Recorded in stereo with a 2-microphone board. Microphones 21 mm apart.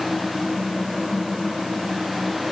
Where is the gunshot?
No gunshot in this recording.